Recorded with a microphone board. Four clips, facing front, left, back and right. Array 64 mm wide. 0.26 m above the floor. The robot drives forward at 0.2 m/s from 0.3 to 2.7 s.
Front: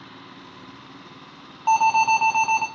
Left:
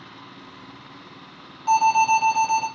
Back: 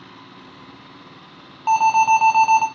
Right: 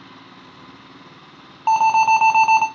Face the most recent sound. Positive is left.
turn(degrees=-115)